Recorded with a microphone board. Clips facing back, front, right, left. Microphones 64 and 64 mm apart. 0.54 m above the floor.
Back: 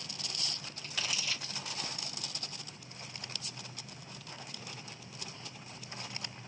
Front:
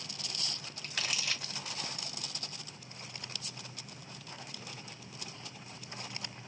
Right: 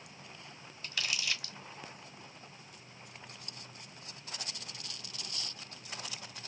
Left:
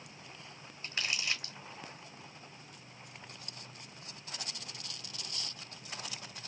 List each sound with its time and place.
0.8 s crumpling: 35° left, 0.8 m